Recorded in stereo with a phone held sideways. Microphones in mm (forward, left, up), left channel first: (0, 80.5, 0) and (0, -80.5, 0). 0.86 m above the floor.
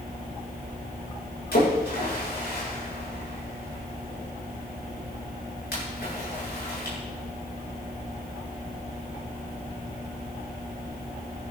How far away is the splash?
About 8 m.